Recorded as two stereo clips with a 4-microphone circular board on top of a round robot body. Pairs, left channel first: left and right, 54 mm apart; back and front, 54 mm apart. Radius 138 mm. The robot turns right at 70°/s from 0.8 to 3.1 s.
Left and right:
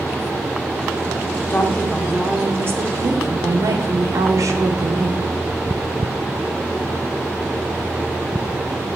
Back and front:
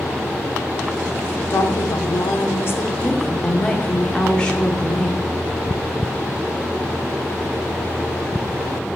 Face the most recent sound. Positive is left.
turn(degrees=-105)